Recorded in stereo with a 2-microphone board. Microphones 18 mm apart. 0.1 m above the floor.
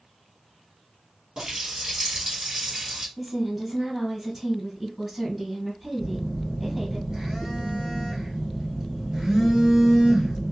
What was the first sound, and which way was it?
A running tap, 40° right (ahead or behind).